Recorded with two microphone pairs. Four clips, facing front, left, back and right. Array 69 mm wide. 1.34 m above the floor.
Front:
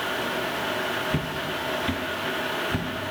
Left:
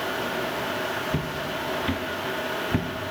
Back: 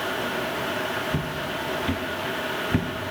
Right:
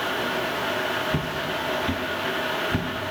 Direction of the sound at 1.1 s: 25° left.